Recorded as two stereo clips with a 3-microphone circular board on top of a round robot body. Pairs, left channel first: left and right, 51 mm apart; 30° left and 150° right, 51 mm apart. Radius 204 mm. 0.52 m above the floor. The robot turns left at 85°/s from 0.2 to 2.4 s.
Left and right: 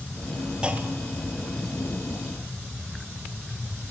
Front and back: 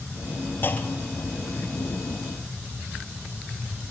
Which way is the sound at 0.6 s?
20° right.